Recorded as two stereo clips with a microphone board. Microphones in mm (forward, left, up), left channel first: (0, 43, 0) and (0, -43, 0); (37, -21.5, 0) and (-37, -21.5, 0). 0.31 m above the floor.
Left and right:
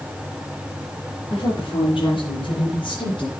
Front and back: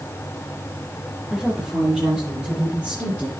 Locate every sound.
1.3 s a woman speaking: 90° left, 6.5 m; by 3.3 s 105° left, 5.5 m